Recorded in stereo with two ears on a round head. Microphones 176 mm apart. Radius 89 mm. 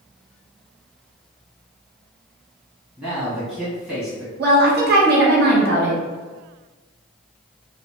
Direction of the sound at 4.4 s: 50° right (ahead or behind).